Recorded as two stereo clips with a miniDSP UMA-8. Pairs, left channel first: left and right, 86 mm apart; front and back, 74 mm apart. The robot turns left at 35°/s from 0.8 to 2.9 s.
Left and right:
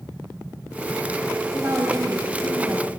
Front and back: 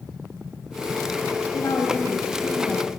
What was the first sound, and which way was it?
A woman speaking, 30° right.